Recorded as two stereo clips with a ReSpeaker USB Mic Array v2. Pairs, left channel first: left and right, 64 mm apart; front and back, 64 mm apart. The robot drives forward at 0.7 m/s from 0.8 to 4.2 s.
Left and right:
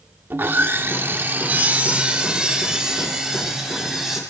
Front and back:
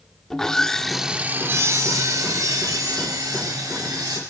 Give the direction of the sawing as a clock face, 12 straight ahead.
3 o'clock.